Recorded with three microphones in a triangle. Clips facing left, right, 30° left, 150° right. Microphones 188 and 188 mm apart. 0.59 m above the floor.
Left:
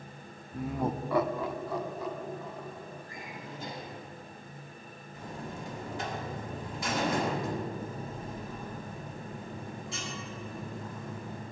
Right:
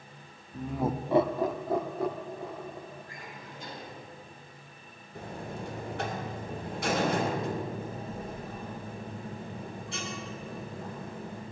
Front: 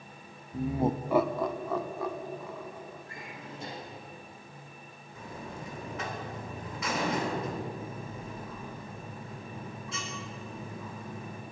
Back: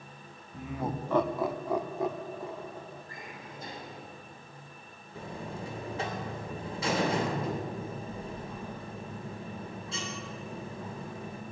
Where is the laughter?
25° left, 0.9 m; by 3.0 s 90° right, 2.5 m.